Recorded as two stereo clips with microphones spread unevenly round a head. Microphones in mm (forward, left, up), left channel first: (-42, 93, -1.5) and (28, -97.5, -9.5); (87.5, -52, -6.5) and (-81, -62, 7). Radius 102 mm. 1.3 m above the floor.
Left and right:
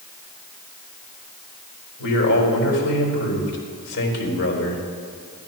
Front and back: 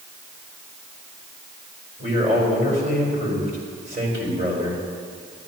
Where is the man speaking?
130° left, 4 m.